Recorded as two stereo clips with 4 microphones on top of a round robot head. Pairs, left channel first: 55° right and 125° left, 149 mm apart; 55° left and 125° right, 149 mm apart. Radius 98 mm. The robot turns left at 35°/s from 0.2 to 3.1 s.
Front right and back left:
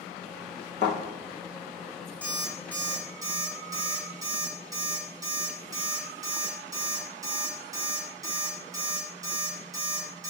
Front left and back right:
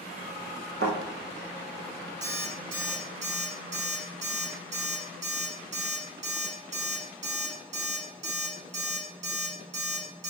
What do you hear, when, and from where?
0.8 s a thud: 105° right, 4.5 m; by 1.0 s 110° right, 4.5 m
2.2 s an alarm clock: 135° right, 4 m; by 10.3 s 170° right, 4 m